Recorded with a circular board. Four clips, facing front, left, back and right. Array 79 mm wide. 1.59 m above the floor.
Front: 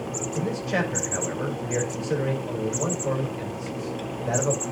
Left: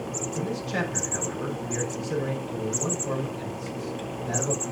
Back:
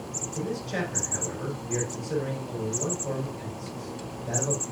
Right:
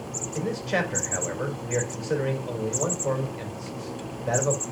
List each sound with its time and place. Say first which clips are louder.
0.3 s a man speaking: right 4 dB, front 4 dB; 60° right, 3.5 m